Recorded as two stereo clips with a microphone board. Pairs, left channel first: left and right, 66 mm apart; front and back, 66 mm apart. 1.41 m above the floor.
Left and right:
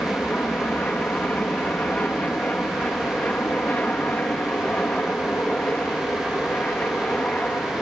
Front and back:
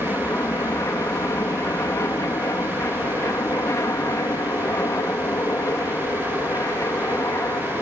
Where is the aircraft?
25° left.